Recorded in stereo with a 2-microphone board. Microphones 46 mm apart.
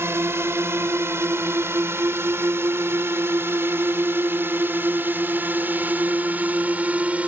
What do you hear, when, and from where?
0.0 s a drone: 65° right (ahead or behind); by 7.3 s 30° right (ahead or behind)